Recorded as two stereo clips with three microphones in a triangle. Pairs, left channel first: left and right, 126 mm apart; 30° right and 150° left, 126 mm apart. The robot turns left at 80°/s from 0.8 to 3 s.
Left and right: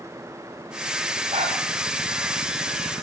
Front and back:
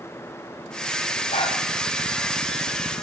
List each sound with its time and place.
1.3 s a dog barking: 60° right, 9 m; by 1.6 s 80° right, 9 m